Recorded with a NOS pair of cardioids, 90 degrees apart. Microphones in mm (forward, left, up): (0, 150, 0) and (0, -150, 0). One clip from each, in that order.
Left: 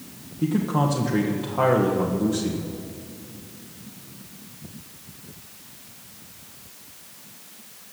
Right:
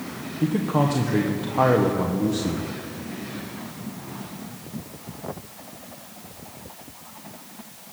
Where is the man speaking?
10° right, 1.2 m.